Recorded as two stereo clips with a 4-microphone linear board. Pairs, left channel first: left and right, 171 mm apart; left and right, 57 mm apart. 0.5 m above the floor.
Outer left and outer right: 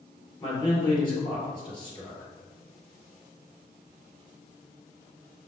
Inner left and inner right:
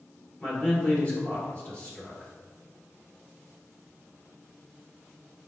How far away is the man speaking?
About 1.8 m.